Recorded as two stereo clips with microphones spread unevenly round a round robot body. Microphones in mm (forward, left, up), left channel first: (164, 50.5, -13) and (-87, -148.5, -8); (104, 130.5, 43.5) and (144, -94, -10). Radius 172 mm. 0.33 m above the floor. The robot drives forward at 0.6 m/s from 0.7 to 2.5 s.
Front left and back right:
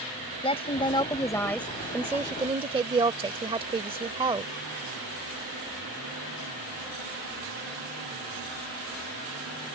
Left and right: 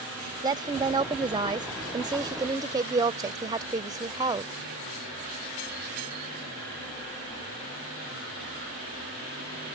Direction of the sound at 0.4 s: 25° right.